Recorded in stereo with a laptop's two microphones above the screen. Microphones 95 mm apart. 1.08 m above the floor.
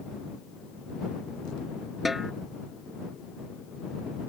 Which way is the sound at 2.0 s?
5° right (ahead or behind).